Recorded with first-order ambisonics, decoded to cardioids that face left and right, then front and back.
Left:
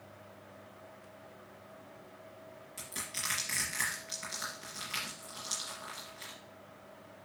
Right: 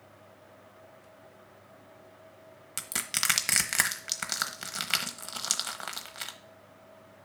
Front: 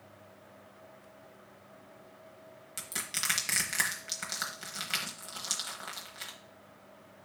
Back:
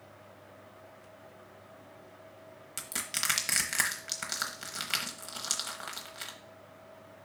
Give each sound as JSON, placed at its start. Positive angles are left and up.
{"t": 2.8, "sound": "crushing", "azimuth_deg": -100, "distance_m": 0.9}